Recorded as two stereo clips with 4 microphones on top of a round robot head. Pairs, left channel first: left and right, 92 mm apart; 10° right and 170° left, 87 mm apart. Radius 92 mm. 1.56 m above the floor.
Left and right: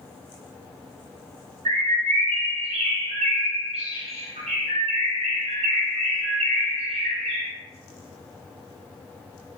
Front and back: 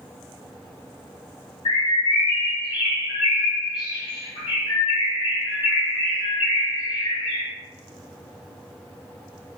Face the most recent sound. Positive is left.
turn(degrees=-60)